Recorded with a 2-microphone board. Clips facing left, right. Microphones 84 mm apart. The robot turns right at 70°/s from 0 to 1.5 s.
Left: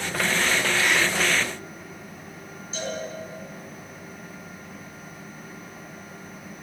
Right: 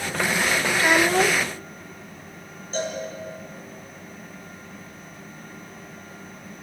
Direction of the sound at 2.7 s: 45° right (ahead or behind).